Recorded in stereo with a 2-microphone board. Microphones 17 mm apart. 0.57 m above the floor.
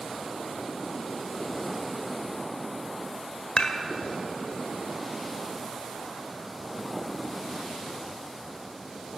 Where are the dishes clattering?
60° left (ahead or behind), 1.1 m.